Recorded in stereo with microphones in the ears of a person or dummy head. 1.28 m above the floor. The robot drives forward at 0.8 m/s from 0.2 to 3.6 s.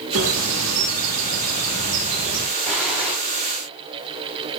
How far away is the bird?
About 1.9 m.